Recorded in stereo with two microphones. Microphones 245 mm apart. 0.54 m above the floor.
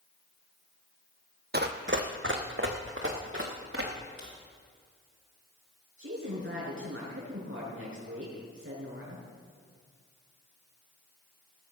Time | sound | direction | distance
1.5 | running footsteps | 40° right (ahead or behind) | 1.0 m
4.2 | a crack | 60° left (ahead or behind) | 5.5 m
6.0 | a woman speaking | 60° right (ahead or behind) | 6 m